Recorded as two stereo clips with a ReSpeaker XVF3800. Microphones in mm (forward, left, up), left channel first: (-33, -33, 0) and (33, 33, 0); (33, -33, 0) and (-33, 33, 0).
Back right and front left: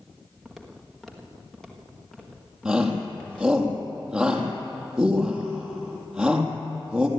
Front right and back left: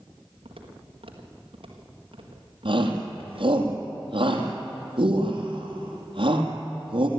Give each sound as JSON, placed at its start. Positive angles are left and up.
{"t": 0.5, "sound": "footsteps", "azimuth_deg": 135, "distance_m": 4.0}
{"t": 2.6, "sound": "a shout", "azimuth_deg": 125, "distance_m": 4.0}